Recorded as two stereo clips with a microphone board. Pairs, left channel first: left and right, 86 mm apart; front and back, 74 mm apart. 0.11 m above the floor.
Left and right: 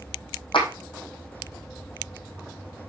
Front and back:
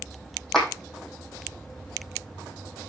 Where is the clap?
85° left, 3 m.